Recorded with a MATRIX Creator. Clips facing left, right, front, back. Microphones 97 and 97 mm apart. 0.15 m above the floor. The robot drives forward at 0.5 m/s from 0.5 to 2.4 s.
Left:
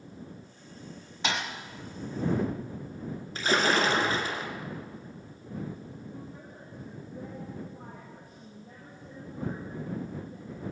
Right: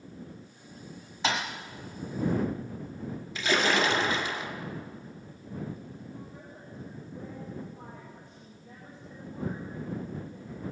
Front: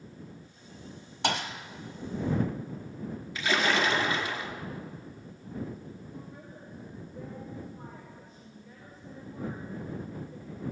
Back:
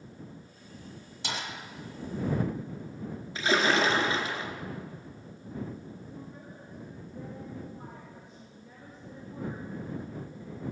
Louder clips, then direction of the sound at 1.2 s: Right 2 dB, front 7 dB; straight ahead.